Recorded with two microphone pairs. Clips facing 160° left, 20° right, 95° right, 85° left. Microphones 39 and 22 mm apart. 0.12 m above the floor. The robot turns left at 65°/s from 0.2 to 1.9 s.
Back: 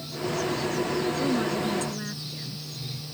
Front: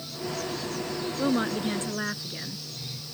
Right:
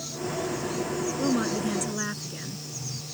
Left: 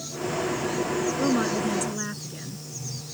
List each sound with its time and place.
1.2 s a woman speaking: 25° left; by 2.6 s 20° right